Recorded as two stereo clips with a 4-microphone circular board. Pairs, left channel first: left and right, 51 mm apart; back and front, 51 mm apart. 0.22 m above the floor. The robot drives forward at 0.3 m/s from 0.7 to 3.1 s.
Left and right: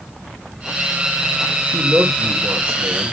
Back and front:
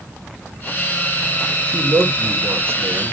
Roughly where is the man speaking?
Ahead right.